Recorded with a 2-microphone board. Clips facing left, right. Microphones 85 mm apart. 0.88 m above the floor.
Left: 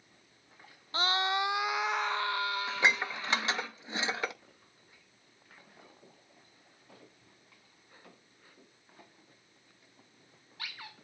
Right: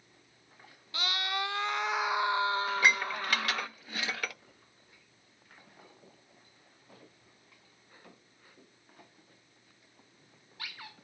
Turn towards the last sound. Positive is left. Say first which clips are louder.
# right 2 dB
turn(degrees=20)  # may be behind; listen again after turning